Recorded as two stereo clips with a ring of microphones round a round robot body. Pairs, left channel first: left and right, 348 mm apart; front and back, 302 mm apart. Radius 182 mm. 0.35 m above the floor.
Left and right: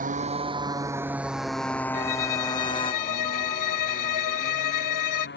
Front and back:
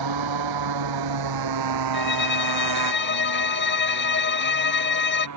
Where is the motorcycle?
160° right; by 5.4 s 150° left.